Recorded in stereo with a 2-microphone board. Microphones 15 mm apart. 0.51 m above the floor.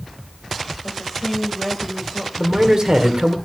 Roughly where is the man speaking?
Right.